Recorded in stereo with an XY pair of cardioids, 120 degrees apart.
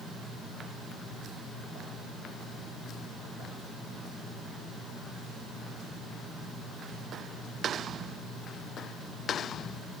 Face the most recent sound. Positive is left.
No sound to turn to.